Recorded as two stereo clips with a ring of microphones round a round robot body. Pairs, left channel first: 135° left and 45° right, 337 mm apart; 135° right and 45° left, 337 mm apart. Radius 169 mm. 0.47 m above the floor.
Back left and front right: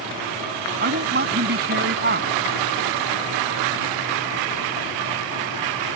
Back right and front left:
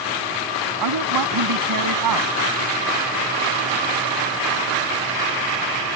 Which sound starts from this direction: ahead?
A woman speaking, at 0.8 s.